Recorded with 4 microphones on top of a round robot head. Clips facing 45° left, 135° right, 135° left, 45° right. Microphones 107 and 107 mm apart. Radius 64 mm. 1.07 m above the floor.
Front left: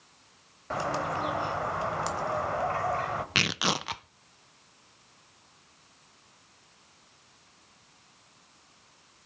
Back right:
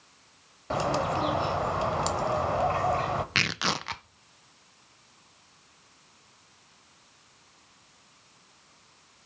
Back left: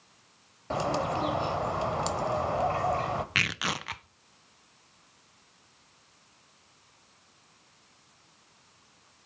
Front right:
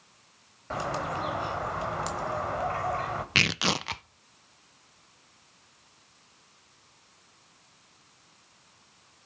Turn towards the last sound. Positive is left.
turn(degrees=-25)